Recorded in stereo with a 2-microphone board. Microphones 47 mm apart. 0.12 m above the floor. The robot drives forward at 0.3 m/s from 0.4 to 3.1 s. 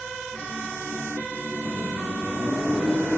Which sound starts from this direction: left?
A microwave, at 1.6 s.